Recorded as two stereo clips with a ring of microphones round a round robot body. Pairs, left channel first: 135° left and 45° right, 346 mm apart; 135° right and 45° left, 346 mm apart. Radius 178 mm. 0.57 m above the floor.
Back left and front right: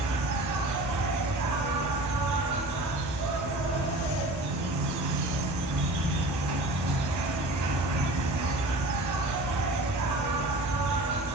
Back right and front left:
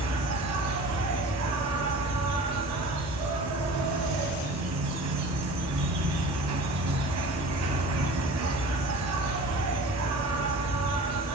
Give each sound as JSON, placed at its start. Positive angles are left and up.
{"t": 0.0, "sound": "an insect", "azimuth_deg": 0, "distance_m": 2.0}